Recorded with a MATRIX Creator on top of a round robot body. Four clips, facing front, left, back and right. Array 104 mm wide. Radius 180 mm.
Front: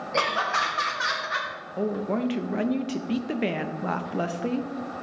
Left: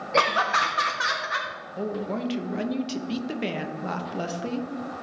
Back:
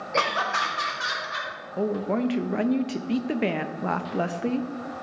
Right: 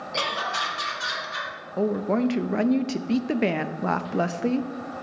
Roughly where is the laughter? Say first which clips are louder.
Left 6 dB, even; left.